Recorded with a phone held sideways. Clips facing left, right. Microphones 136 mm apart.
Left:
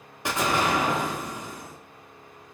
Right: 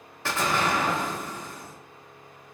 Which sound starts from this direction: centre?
An explosion, at 0.2 s.